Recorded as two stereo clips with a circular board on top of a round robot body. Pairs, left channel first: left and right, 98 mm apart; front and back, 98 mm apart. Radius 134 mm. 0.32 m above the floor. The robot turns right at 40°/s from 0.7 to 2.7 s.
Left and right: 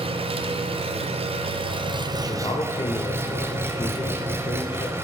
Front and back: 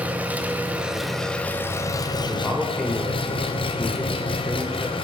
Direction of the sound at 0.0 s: 105° right.